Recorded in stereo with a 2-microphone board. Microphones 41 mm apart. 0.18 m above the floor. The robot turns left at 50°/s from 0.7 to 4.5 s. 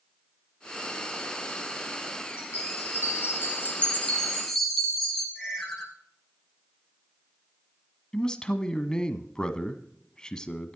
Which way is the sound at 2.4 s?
105° left.